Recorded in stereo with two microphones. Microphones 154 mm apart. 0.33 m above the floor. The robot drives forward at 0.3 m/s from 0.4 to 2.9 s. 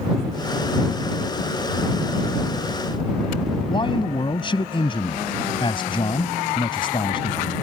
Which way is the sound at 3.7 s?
35° left (ahead or behind).